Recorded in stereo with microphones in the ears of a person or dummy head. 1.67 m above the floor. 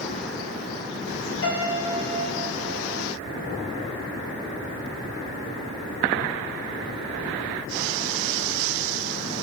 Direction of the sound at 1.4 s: 70° left (ahead or behind).